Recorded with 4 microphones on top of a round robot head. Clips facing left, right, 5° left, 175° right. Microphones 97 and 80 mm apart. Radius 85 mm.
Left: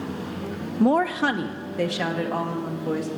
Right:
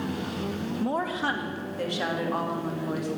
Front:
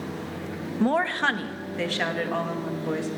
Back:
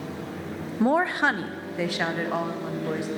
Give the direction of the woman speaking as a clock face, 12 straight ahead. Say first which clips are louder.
Left 9 dB, back 2 dB; 8 o'clock.